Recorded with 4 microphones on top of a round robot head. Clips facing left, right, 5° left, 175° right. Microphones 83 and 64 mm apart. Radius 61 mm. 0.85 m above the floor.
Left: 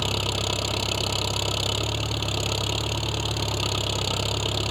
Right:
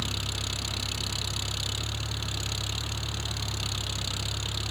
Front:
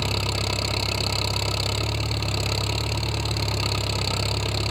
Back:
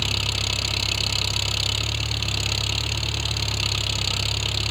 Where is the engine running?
65° left.